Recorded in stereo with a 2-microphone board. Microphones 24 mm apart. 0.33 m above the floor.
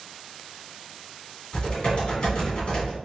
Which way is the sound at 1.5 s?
45° left (ahead or behind).